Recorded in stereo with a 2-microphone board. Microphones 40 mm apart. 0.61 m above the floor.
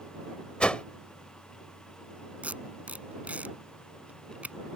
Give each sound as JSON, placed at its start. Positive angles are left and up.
{"t": 0.6, "sound": "a whoosh", "side_deg": 30}
{"t": 2.4, "sound": "tape being pulled", "side_deg": -40}